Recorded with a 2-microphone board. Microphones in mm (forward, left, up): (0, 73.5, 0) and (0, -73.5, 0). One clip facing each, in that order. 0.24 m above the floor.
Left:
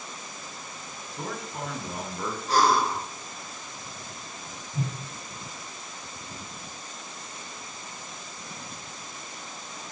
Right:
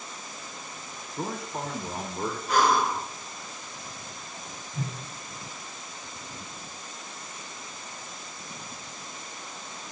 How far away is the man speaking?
About 1.3 m.